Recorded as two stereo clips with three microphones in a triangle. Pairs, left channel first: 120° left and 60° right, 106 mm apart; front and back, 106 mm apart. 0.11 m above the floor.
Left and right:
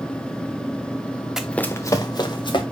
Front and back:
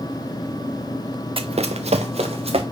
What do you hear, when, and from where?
1.4 s running footsteps: 145° right, 0.6 m; by 2.6 s 160° left, 1.7 m